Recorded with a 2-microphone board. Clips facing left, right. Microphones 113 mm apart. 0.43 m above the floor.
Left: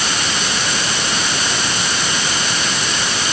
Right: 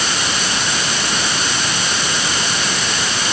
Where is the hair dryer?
I don't hear a hair dryer.